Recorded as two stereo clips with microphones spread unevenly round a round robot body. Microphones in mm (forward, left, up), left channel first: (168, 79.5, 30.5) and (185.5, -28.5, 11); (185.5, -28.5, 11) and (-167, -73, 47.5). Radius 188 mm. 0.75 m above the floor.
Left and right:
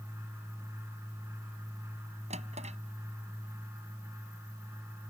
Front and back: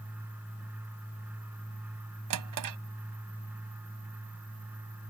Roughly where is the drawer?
Behind right.